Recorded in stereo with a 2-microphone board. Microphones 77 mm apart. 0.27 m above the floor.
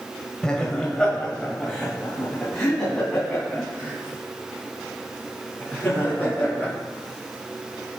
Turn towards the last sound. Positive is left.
turn(degrees=5)  # may be behind; listen again after turning